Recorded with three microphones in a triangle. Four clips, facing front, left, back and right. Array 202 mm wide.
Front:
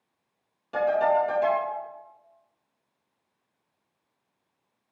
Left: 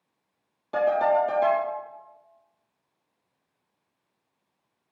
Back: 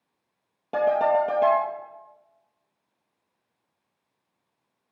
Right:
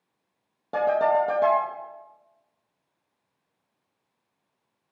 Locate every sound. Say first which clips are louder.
0.7 s a ringtone: even, back 1 dB; 140° right, 3 m